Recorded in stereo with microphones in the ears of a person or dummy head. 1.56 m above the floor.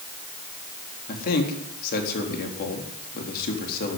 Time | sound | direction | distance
1.1 | a man speaking | 55° left (ahead or behind) | 4 m